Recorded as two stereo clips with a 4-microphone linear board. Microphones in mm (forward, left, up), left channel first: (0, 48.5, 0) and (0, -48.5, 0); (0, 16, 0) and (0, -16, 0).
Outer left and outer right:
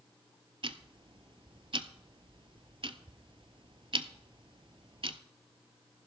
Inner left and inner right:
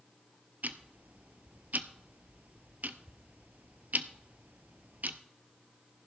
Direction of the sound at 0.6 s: 60° right (ahead or behind).